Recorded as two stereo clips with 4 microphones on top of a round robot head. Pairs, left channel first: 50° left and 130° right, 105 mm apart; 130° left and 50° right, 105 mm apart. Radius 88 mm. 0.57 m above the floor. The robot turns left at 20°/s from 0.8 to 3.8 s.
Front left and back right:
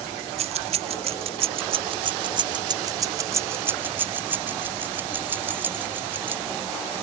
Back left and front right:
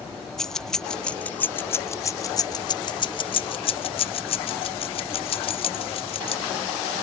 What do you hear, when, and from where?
0.4 s keys jangling: 145° right; by 6.4 s 155° left